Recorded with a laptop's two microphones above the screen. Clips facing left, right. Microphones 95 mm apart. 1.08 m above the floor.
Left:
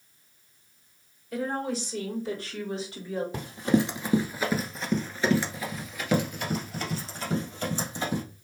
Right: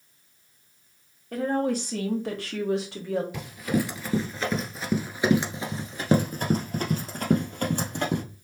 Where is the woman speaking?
50° right (ahead or behind), 2 m; by 3.2 s 80° right, 2 m.